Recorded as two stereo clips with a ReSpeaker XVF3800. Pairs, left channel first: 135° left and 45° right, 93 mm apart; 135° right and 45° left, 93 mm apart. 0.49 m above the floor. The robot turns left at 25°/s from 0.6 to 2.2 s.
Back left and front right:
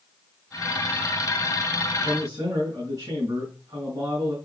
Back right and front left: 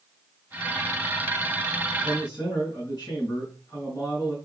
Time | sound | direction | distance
2.0 | a man speaking | 75° right | 5.5 m